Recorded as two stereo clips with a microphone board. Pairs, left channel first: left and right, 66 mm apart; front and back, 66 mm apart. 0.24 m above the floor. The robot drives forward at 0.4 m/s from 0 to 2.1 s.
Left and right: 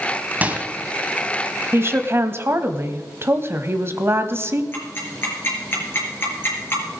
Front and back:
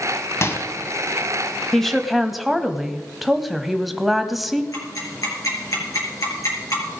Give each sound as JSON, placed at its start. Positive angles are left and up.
{"t": 0.4, "sound": "a microwave", "azimuth_deg": -30, "distance_m": 1.4}
{"t": 1.7, "sound": "a woman speaking", "azimuth_deg": -80, "distance_m": 1.1}
{"t": 4.7, "sound": "ticking", "azimuth_deg": 35, "distance_m": 5.0}